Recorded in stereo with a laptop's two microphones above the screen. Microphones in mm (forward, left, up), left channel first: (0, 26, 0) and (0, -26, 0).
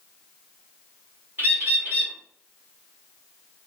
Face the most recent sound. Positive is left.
turn(degrees=-50)  # may be behind; listen again after turning